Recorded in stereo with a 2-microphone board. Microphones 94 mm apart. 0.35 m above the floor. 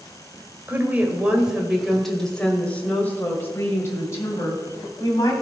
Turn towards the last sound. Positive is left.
turn(degrees=40)  # may be behind; listen again after turning